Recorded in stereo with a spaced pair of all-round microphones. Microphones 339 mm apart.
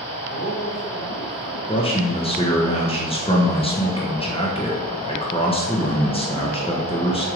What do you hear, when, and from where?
0.3 s a man speaking: 70° left (ahead or behind), 3 m
1.7 s a man speaking: 15° left (ahead or behind), 0.9 m